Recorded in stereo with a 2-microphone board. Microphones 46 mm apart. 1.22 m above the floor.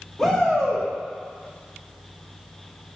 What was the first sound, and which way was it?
A shout, 10° left (ahead or behind).